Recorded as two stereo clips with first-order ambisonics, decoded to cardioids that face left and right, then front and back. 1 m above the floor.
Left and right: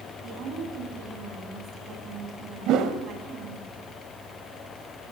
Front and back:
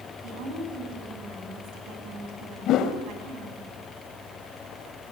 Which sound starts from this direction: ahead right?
A whoosh, at 2.7 s.